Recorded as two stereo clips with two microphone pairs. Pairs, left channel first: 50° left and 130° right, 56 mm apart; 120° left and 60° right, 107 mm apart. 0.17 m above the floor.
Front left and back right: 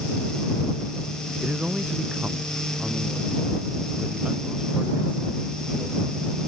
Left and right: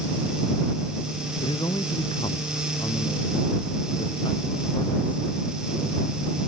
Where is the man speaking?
160° left.